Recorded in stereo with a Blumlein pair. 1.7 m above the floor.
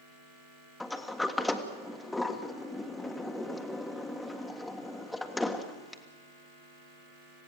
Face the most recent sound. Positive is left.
turn(degrees=10)